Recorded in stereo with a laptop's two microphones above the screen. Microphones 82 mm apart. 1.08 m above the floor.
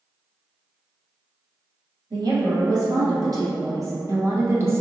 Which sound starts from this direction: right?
A woman speaking, at 2.1 s.